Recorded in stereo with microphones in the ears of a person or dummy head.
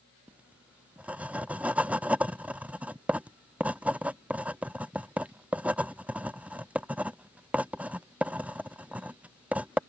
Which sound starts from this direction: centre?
Writing, at 0.3 s.